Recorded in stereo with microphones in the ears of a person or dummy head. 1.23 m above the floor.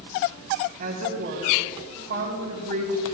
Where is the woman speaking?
40° right (ahead or behind), 4 m.